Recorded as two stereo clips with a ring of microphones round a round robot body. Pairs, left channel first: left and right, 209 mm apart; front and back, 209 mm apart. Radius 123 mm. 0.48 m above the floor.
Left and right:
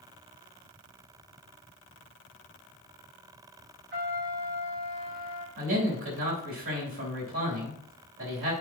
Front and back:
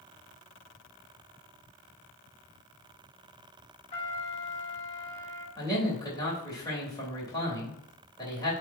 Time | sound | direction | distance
3.9 | a trumpet | 60° right | 2.5 m
5.6 | a man speaking | 70° right | 3 m